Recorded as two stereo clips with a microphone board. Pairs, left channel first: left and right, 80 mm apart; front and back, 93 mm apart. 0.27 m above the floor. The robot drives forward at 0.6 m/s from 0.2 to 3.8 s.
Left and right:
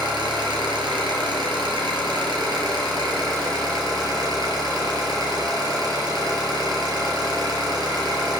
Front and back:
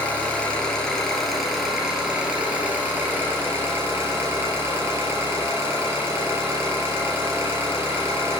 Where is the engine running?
75° right, 3 m; by 8.4 s 120° right, 3 m.